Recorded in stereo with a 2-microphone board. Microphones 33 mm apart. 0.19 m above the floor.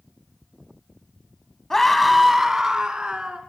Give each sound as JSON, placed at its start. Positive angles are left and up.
{"t": 1.7, "sound": "a scream", "side_deg": 15, "distance_m": 1.5}